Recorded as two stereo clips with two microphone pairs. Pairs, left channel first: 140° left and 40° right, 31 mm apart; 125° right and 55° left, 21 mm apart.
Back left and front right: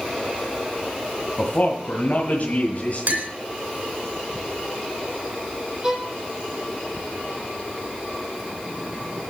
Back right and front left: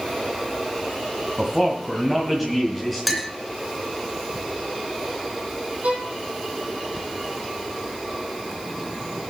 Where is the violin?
30° left, 2.5 m.